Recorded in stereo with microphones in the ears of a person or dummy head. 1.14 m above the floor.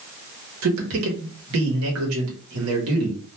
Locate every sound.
0.6 s a man speaking: 80° right, 1.0 m